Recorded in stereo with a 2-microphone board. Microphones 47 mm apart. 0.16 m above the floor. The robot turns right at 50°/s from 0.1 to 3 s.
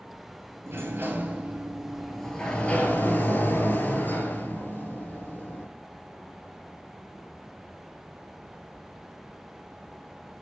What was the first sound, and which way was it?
A sliding door, 75° right.